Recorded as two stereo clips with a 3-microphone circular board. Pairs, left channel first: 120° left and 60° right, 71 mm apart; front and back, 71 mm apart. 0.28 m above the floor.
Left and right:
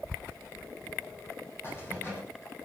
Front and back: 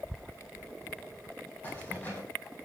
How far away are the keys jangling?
About 6.5 m.